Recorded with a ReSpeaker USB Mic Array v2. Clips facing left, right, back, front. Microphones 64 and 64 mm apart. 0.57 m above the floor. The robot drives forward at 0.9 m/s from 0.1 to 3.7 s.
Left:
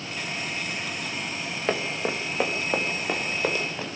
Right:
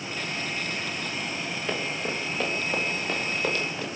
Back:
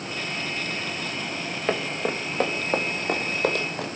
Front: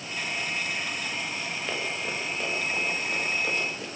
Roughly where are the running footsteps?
Behind left.